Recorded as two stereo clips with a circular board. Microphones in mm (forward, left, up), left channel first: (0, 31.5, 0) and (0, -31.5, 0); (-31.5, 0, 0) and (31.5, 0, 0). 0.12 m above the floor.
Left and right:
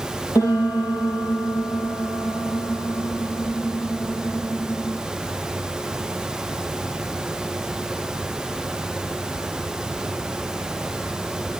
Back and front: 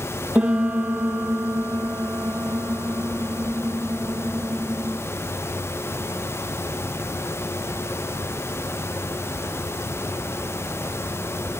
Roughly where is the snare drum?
No snare drum in this recording.